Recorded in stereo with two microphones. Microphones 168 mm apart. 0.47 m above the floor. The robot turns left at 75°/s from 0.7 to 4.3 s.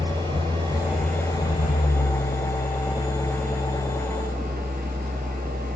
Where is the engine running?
155° right, 9 m; by 5.8 s 65° right, 9 m.